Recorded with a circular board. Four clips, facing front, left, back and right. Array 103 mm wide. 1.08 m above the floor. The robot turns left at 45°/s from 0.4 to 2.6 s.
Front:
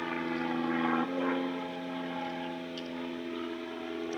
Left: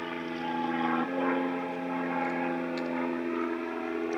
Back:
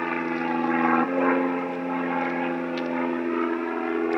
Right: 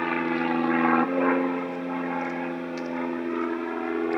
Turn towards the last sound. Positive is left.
turn(degrees=-150)